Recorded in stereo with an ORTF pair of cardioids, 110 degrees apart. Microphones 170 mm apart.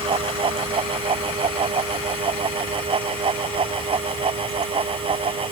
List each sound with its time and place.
0.0 s a fan: 30° right